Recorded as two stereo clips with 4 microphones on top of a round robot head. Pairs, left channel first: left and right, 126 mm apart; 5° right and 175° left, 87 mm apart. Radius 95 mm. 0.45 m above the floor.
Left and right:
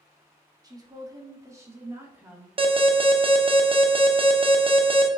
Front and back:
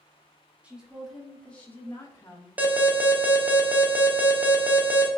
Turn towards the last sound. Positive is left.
turn(degrees=-120)